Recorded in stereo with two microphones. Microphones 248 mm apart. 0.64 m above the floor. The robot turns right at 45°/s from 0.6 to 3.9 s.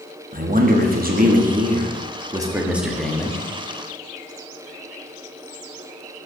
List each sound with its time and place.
0.3 s a man speaking: 105° right, 1.0 m; by 3.4 s 20° left, 1.0 m